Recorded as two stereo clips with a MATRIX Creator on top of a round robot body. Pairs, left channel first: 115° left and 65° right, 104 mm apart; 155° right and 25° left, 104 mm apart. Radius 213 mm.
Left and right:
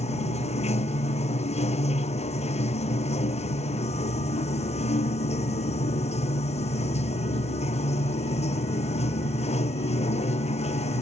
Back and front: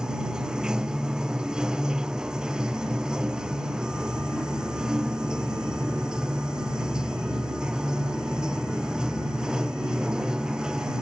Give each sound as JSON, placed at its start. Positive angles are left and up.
{"t": 0.0, "sound": "running water", "azimuth_deg": 105}